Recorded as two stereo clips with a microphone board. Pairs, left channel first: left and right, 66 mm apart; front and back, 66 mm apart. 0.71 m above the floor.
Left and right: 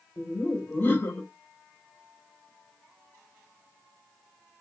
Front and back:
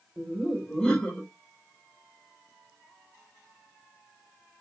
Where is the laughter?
65° left, 0.8 m.